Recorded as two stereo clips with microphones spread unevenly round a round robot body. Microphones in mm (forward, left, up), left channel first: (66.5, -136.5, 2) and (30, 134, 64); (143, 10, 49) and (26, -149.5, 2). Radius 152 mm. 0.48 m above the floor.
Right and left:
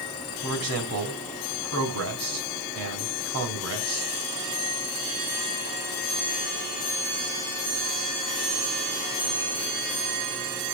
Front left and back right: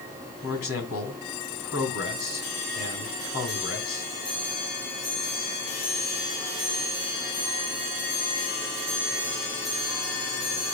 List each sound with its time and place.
0.4 s a man speaking: 65° left, 5 m